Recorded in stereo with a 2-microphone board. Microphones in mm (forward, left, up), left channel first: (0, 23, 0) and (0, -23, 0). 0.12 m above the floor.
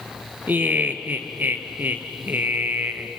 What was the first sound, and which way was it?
Laughter, 45° right (ahead or behind).